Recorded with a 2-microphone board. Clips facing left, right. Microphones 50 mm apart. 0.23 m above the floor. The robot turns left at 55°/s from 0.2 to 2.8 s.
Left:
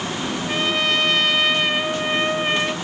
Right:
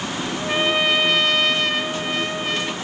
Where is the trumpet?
20° right (ahead or behind), 1.2 m; by 2.8 s 25° left (ahead or behind), 1.2 m.